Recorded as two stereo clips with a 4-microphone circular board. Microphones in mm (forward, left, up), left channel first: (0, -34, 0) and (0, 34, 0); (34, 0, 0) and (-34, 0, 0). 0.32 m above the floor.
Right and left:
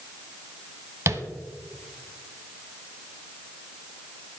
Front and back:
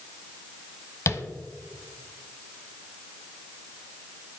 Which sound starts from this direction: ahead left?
Tapping, at 1.1 s.